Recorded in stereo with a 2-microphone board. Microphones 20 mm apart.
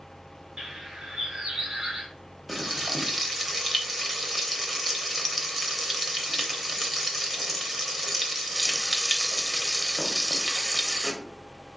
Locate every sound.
0.6 s a bird: 35° right (ahead or behind), 1.3 m
2.5 s frying: centre (ahead or behind), 0.8 m